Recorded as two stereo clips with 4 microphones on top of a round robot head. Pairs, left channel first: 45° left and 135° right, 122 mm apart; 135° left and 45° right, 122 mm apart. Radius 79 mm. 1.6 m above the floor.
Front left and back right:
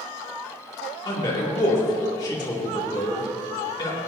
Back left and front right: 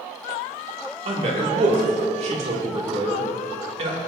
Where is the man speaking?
15° right, 2.5 m.